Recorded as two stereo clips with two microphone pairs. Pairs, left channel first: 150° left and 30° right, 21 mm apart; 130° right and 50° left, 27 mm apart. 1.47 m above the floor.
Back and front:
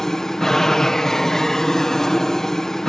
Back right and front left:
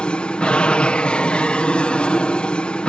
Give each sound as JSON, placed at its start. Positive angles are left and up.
{"t": 0.0, "sound": "an aircraft", "azimuth_deg": -150}